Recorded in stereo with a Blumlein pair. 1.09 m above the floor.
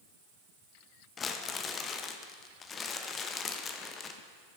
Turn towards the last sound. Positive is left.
turn(degrees=20)